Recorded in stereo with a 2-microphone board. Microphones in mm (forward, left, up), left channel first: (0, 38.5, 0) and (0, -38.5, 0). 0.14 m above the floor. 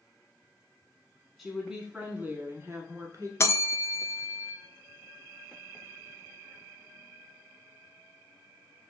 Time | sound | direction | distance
1.4 | a woman speaking | centre (ahead or behind) | 1.1 m
3.4 | a bell | 35° left (ahead or behind) | 0.5 m